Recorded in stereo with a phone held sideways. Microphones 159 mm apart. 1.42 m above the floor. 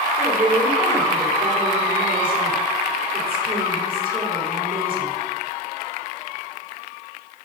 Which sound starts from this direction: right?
A woman speaking, at 0.2 s.